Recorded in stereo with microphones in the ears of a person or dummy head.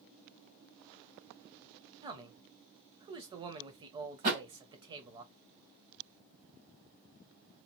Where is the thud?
50° right (ahead or behind), 2 m.